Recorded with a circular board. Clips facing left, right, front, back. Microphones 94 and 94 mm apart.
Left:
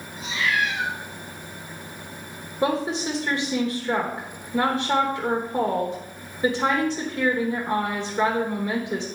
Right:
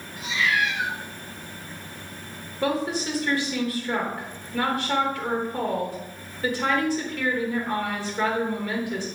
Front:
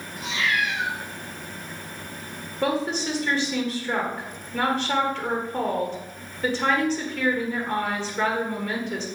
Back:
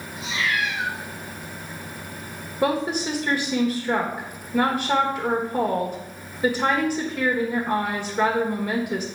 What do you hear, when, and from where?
0.2 s a cat meowing: 30° left, 3.5 m
2.6 s a woman speaking: 120° left, 1.1 m